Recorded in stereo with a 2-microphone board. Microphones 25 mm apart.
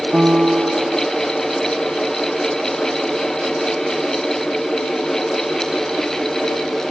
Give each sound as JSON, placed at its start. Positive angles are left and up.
{"t": 0.1, "sound": "a piano", "side_deg": -65, "distance_m": 1.0}